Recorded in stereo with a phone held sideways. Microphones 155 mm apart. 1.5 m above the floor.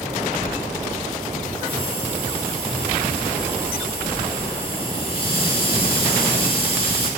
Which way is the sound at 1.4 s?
35° left (ahead or behind).